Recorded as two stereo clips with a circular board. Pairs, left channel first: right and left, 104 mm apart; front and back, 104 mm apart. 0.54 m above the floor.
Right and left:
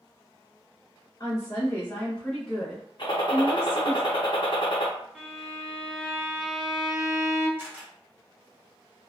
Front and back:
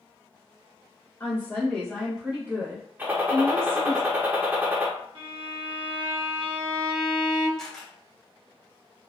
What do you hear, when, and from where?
1.2 s a woman speaking: 55° right, 1.2 m; by 4.0 s 155° left, 1.6 m
3.0 s a gunshot: 110° right, 0.6 m
5.2 s a violin: 175° left, 0.8 m
7.6 s a camera shutter: 75° left, 0.9 m